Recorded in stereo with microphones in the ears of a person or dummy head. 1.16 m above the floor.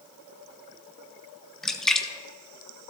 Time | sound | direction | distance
1.6 | a splash | 5° left (ahead or behind) | 0.6 m